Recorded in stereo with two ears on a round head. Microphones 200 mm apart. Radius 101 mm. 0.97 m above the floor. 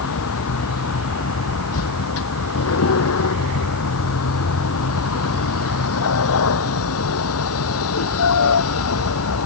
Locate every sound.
0.0 s a vehicle: 75° left (ahead or behind)